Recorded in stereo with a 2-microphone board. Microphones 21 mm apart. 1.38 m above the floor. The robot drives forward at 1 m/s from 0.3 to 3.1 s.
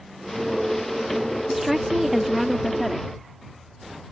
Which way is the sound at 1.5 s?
15° right (ahead or behind).